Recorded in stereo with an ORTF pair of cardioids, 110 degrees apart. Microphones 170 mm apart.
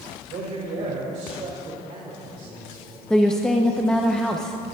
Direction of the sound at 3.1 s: 5° left.